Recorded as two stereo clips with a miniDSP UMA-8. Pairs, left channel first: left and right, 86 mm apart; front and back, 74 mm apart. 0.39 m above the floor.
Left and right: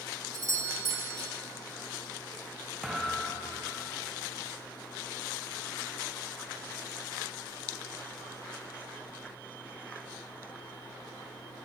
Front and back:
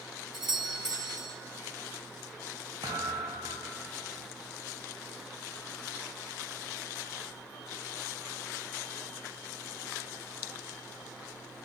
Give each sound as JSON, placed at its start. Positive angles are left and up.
{"t": 0.3, "sound": "a doorbell", "azimuth_deg": -100, "distance_m": 2.0}
{"t": 2.8, "sound": "a thud", "azimuth_deg": -175, "distance_m": 5.0}